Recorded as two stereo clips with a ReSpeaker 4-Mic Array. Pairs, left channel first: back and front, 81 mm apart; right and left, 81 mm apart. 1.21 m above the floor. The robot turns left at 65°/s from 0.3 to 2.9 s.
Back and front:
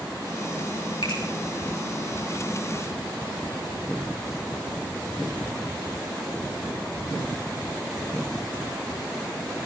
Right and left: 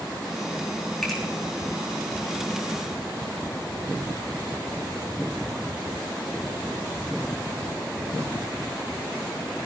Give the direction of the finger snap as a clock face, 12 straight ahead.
6 o'clock.